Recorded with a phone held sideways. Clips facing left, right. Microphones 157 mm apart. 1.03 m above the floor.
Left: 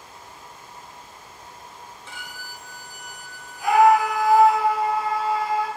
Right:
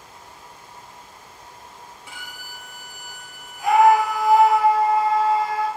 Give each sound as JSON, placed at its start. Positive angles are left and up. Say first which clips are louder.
{"t": 2.1, "sound": "a violin", "louder": "left 1 dB", "side_deg": -10, "distance_m": 0.5}
{"t": 3.6, "sound": "a scream", "louder": "right 1 dB", "side_deg": -20, "distance_m": 1.6}